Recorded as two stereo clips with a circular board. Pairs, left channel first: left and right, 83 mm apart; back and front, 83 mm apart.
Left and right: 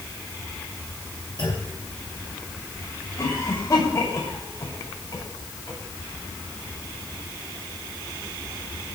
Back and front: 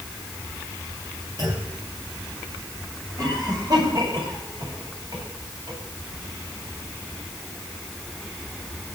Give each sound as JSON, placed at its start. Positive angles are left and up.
{"t": 1.4, "sound": "a clunk", "azimuth_deg": 50, "distance_m": 9.0}
{"t": 3.2, "sound": "a cough", "azimuth_deg": 40, "distance_m": 9.0}